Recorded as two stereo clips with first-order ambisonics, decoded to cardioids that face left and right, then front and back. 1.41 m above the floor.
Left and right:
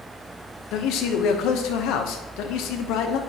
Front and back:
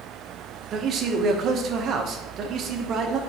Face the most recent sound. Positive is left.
turn(degrees=125)